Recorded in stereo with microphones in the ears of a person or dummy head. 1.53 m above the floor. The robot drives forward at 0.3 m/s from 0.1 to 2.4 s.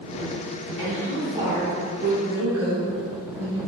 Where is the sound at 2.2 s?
75° right (ahead or behind), 1.3 m; by 3.6 s 70° right (ahead or behind), 1.3 m.